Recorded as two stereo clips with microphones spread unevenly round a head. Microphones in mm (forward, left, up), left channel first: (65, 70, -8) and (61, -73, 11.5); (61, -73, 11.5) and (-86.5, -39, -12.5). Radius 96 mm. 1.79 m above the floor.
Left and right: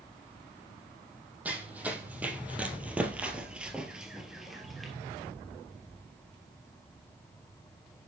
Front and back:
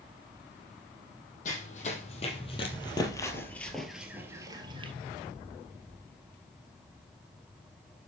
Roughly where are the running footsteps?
Ahead.